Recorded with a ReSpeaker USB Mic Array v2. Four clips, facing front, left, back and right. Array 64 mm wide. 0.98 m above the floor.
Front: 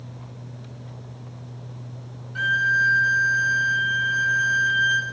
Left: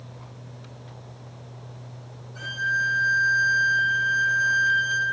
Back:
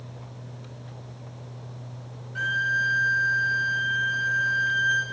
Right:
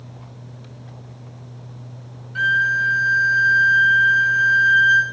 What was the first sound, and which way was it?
A violin, 85° right.